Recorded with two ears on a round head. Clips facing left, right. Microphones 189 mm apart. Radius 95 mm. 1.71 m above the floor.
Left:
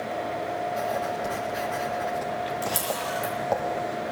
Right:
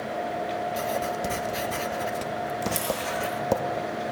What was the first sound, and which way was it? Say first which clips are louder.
Writing: even; 45° right (ahead or behind).